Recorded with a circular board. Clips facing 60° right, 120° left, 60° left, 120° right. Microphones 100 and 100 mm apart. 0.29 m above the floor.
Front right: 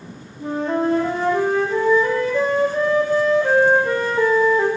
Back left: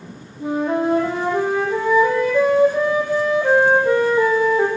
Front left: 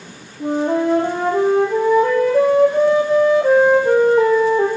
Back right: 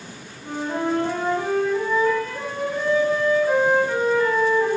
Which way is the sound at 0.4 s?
40° left.